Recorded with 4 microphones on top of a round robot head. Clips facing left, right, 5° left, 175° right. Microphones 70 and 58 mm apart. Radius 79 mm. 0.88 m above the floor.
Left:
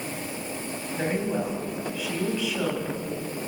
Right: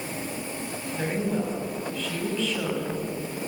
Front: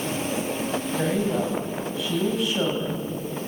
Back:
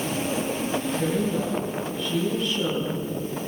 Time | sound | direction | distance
0.9 | a woman speaking | 10° left | 6 m